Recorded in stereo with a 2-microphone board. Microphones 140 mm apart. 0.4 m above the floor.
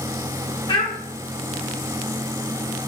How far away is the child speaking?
About 0.7 m.